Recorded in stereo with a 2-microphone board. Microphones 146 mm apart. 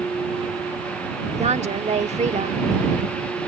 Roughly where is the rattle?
No rattle in this recording.